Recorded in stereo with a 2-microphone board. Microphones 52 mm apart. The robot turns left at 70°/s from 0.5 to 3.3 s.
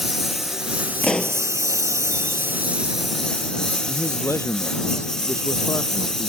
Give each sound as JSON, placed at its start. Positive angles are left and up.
{"t": 0.0, "sound": "a lawn mower", "side_deg": -5}
{"t": 1.0, "sound": "a pop", "side_deg": 25}
{"t": 3.9, "sound": "a man speaking", "side_deg": 65}